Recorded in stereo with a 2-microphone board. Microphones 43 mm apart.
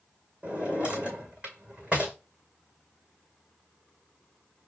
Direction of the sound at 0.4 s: 30° right (ahead or behind).